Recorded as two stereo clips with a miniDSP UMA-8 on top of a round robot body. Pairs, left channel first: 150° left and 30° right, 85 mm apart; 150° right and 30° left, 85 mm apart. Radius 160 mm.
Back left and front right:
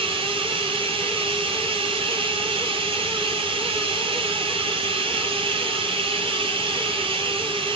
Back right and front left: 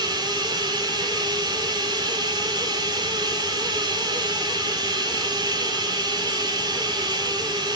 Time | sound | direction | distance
0.0 | running water | 10° right | 1.7 m